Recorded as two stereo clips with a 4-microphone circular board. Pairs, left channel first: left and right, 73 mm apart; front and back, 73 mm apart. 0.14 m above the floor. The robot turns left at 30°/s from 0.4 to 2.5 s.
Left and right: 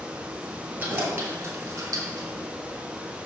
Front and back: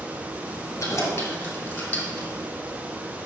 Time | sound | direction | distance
0.8 | keys jangling | 35° right | 1.7 m